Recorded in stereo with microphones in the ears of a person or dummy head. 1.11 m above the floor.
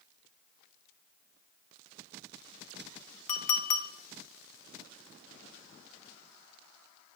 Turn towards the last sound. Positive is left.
turn(degrees=35)  # may be behind; listen again after turning